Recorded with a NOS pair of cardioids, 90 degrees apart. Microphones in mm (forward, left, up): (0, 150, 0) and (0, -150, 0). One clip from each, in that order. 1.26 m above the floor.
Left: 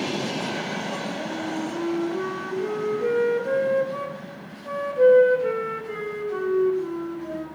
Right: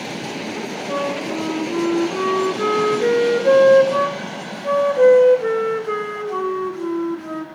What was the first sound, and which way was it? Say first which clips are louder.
A flute: right 7 dB; 60° right.